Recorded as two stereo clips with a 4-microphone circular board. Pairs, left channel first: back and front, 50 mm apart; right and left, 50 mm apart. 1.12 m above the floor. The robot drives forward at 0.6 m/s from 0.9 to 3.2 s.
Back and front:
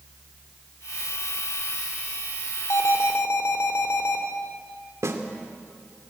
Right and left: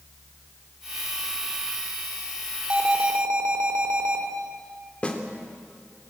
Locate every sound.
2.7 s an alarm: 155° left, 3 m; by 4.2 s 160° left, 3 m
5.0 s a snare drum: 25° right, 2.5 m